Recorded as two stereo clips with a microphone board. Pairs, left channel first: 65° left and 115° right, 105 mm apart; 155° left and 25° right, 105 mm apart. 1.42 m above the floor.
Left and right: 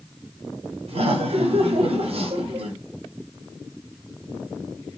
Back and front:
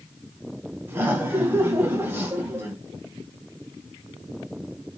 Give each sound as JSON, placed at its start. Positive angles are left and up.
{"t": 0.9, "sound": "laughter", "azimuth_deg": -95, "distance_m": 1.0}